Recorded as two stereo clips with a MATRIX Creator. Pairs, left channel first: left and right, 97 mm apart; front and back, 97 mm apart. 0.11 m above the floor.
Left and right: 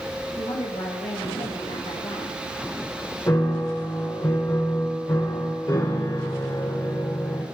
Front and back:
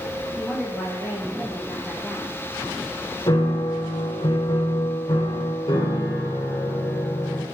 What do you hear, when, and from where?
0.4 s a woman speaking: 90° left, 7 m; by 2.4 s 95° left, 8 m
3.3 s a piano: 40° left, 4.5 m